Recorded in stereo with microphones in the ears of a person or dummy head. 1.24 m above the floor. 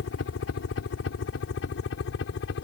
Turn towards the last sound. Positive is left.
turn(degrees=65)  # may be behind; listen again after turning